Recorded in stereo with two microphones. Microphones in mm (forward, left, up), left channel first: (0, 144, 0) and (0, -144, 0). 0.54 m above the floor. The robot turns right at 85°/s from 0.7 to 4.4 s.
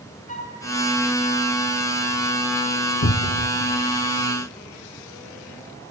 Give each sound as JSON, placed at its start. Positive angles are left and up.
{"t": 0.3, "sound": "a flute", "side_deg": 25, "distance_m": 2.5}
{"t": 3.0, "sound": "a cupboard door", "azimuth_deg": 100, "distance_m": 0.8}